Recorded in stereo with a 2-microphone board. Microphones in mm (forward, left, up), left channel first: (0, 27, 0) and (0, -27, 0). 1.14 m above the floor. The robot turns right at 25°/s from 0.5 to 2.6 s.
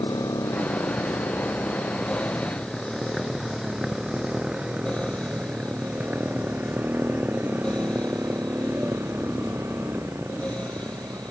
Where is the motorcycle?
80° left; by 11.3 s 55° right (ahead or behind).